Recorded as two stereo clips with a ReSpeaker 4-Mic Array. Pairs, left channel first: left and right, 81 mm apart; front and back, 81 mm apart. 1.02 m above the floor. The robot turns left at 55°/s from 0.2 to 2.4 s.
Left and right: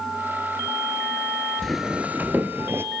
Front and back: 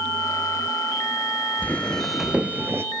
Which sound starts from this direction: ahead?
Footsteps, at 1.6 s.